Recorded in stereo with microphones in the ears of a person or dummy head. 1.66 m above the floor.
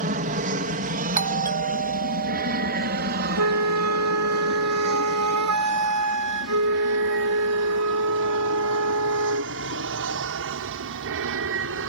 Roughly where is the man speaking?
I don't hear a man speaking.